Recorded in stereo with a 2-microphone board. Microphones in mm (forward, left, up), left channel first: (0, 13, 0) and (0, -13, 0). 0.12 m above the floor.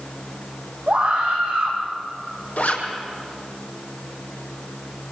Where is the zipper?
70° left (ahead or behind), 4 m.